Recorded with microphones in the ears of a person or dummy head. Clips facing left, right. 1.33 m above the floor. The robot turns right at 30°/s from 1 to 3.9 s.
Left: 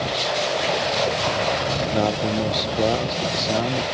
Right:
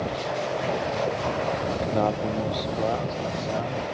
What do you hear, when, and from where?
1.8 s a man speaking: 10° left; by 3.9 s 70° left